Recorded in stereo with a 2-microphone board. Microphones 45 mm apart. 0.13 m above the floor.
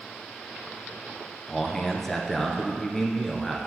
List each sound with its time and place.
1.5 s a man speaking: 5° left (ahead or behind), 1.5 m